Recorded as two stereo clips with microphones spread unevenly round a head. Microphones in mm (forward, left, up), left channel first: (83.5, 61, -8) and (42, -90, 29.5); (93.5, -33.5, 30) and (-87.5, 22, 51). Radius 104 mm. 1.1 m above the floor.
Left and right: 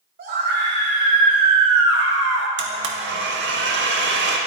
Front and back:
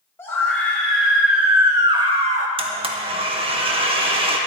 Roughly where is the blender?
Behind right.